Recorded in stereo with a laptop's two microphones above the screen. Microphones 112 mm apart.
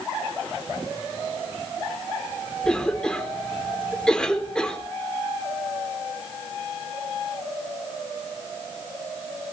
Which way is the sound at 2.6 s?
5° left (ahead or behind).